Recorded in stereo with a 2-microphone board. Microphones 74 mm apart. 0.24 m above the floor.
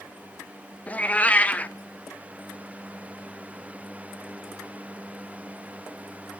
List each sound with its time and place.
0.9 s a cat meowing: 20° left (ahead or behind), 0.7 m